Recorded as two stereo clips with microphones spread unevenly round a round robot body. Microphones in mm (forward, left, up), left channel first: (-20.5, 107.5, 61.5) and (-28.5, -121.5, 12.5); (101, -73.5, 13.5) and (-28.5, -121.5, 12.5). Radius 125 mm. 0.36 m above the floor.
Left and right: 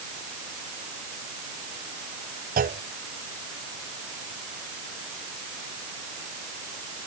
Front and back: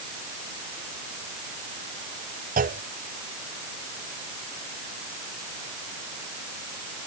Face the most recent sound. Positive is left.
turn(degrees=-145)